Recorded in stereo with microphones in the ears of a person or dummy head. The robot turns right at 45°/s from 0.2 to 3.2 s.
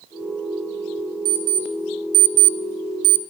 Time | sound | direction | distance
1.2 | an alarm clock | 15° right (ahead or behind) | 0.6 m